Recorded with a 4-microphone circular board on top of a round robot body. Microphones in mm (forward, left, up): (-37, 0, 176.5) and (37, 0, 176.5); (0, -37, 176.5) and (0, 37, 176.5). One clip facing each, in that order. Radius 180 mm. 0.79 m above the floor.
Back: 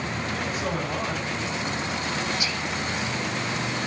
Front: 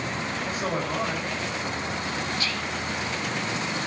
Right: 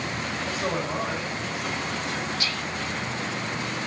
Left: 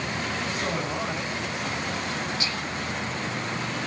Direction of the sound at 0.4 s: 40° right.